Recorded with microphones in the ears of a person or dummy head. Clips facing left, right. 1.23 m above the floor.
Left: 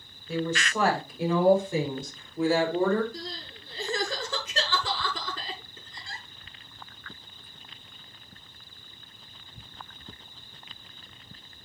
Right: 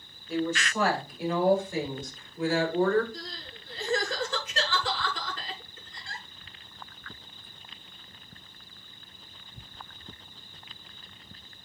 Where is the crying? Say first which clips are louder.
Left 3 dB; 85° left, 8 m.